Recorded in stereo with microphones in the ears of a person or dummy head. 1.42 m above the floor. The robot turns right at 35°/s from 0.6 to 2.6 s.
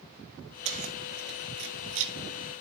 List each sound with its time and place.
0.7 s keys jangling: 35° right (ahead or behind), 1.1 m; by 2.1 s 65° right (ahead or behind), 1.1 m